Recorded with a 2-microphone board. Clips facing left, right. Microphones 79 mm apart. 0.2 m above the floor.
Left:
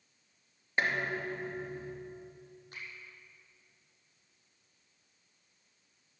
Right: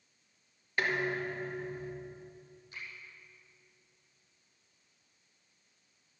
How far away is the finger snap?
About 6 m.